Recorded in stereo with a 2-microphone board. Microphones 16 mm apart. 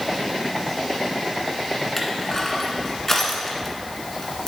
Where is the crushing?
20° left (ahead or behind), 1.9 m.